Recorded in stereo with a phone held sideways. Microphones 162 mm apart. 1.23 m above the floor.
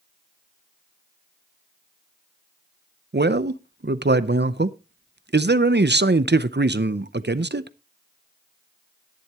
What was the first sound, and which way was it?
A man speaking, 85° right.